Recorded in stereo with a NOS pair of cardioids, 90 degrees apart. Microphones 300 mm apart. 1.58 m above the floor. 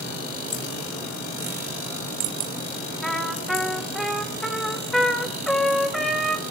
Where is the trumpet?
Straight ahead, 2.5 m.